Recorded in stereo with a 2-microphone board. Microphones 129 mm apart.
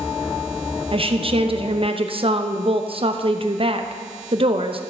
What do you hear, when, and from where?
0.9 s a woman speaking: 50° right (ahead or behind), 0.7 m